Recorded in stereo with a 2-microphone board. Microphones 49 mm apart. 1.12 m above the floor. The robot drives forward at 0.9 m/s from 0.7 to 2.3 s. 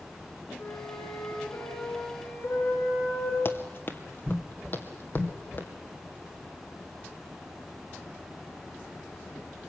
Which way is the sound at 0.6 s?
80° left.